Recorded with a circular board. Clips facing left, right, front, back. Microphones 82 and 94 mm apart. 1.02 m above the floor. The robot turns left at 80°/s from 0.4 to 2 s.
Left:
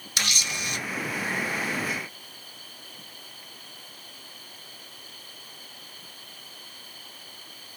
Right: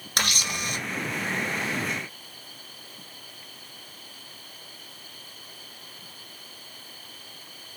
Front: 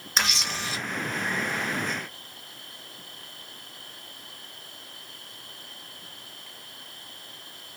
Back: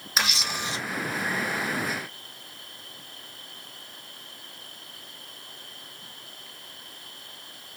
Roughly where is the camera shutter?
Right.